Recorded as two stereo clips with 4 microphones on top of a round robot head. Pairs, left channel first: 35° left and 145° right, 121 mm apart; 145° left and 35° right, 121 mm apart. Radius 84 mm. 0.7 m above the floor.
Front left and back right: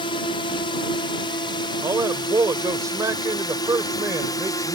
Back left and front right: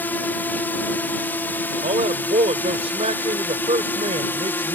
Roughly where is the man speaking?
Right.